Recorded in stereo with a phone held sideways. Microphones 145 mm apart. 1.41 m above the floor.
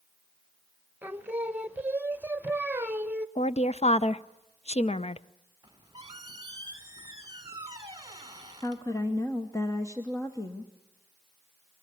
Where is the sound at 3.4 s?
45° left (ahead or behind), 0.5 m.